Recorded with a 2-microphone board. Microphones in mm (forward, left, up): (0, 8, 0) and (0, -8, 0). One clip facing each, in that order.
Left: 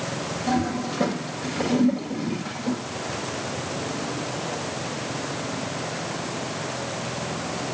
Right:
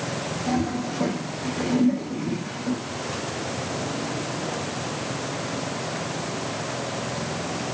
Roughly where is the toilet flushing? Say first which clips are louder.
Left 1 dB; left.